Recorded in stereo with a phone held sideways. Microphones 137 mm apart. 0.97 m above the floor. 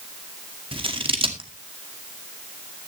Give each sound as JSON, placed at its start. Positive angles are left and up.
{"t": 0.7, "sound": "scissors", "side_deg": -40, "distance_m": 2.0}